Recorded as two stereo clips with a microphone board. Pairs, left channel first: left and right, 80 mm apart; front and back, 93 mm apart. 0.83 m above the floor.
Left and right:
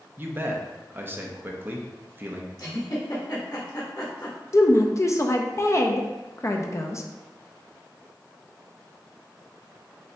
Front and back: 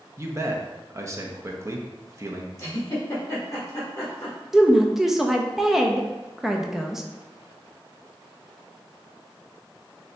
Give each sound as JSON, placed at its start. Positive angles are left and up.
{"t": 0.2, "sound": "a man speaking", "azimuth_deg": -140, "distance_m": 0.6}
{"t": 2.6, "sound": "a giggle", "azimuth_deg": 55, "distance_m": 1.4}
{"t": 4.5, "sound": "a woman speaking", "azimuth_deg": 95, "distance_m": 0.5}